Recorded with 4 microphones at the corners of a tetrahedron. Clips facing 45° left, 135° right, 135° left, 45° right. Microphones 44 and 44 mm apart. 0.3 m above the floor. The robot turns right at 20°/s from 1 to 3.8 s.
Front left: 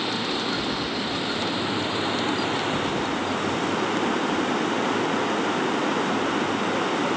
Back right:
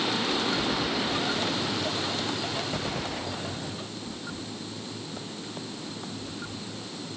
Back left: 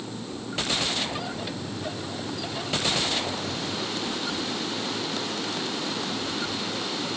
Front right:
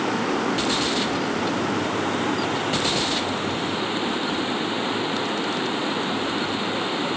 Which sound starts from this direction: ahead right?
Running water, at 0.0 s.